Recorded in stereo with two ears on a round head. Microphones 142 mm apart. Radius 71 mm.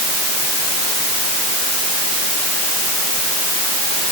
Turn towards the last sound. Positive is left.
No sound to turn to.